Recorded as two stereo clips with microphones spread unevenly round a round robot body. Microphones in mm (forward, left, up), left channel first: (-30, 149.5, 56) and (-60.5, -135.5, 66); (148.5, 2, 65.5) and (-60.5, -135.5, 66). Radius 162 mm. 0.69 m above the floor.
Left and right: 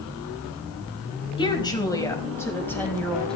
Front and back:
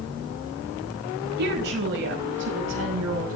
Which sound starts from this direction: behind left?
A woman speaking, at 1.4 s.